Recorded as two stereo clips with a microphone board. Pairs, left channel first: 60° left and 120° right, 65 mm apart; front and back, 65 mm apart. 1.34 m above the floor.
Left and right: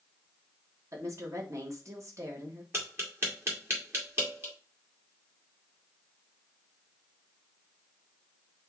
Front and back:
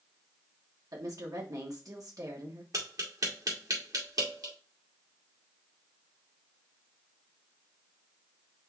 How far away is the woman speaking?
About 1.5 m.